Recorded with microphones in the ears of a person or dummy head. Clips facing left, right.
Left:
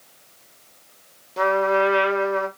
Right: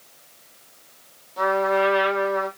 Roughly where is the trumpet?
Left.